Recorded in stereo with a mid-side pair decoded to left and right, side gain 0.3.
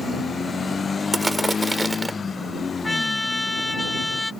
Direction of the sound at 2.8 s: 20° left.